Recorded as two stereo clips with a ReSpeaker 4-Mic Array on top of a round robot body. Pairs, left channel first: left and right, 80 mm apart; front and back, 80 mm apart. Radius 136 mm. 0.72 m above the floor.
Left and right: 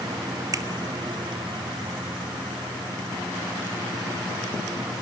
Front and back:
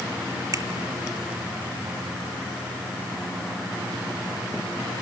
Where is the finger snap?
135° right, 2.5 m.